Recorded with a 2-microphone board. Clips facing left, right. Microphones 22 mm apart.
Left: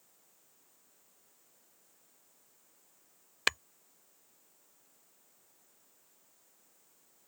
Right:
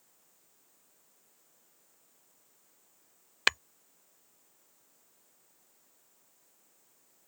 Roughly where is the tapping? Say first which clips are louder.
Right 3 dB; centre.